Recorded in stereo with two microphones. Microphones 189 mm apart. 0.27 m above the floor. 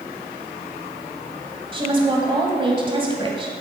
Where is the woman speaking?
30° right (ahead or behind), 1.6 m.